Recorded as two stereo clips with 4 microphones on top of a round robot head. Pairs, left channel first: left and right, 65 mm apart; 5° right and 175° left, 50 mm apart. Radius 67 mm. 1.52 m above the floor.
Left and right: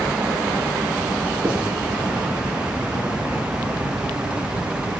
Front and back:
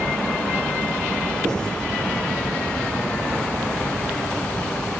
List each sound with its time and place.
1.4 s writing: 165° right, 6 m